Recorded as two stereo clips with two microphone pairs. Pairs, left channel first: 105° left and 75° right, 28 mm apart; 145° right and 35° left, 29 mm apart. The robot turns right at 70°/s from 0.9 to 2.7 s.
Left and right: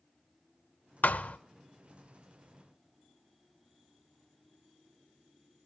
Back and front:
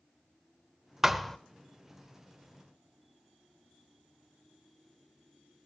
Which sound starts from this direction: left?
A thud, at 1.0 s.